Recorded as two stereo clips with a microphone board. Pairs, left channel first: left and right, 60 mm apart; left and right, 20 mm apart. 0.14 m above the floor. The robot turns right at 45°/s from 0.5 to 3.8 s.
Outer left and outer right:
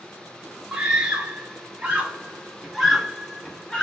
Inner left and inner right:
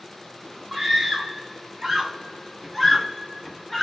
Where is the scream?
20° right (ahead or behind), 1.8 m; by 3.8 s 10° left (ahead or behind), 1.8 m.